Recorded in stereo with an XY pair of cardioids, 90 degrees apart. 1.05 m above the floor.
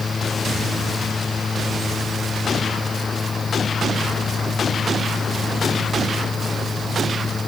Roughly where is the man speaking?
I don't hear a man speaking.